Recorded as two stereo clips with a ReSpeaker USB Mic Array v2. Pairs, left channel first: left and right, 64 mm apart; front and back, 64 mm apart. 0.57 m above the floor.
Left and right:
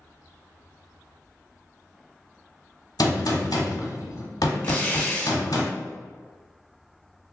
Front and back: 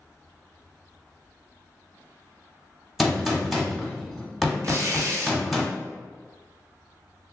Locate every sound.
3.0 s a gunshot: 90° left, 0.8 m
4.6 s tearing paper: 160° left, 0.8 m